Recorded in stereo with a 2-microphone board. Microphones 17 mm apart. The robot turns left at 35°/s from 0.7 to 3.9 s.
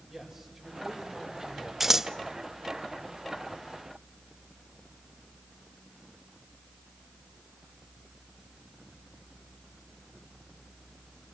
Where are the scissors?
20° right (ahead or behind), 0.6 m; by 2.1 s 25° right (ahead or behind), 0.6 m.